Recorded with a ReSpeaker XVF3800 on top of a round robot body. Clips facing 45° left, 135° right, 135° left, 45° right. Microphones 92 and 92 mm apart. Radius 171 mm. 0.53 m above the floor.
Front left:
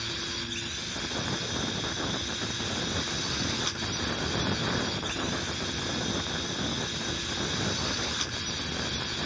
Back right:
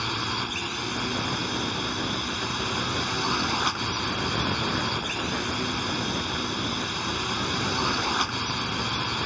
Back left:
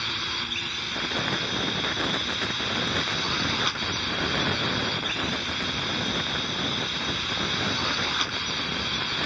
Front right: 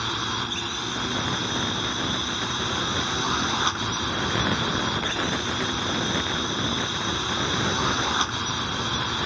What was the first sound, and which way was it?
A drone, 105° right.